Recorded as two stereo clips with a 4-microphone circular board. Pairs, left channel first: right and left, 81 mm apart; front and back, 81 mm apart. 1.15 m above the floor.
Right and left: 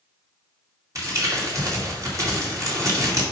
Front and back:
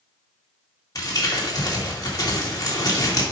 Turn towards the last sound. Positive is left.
turn(degrees=45)